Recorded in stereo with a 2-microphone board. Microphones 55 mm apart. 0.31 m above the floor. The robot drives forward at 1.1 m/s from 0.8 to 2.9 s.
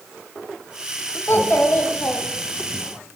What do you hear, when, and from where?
1.3 s a child speaking: 50° left (ahead or behind), 1.5 m; by 2.8 s 25° left (ahead or behind), 2.5 m